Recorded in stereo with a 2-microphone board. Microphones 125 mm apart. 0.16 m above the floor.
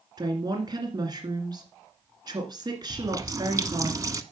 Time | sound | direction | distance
0.2 | a woman speaking | 35° right (ahead or behind) | 2 m
2.9 | a running tap | 30° right (ahead or behind) | 0.8 m